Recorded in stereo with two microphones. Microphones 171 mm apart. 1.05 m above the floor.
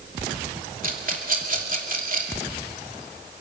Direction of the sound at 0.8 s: 50° right (ahead or behind).